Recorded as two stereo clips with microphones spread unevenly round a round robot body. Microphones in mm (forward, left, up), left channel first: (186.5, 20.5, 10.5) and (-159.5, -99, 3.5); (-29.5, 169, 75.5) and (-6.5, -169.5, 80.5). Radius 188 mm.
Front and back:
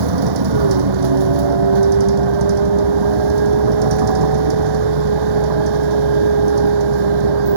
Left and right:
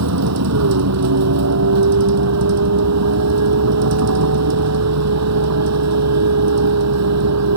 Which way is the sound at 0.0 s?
135° right.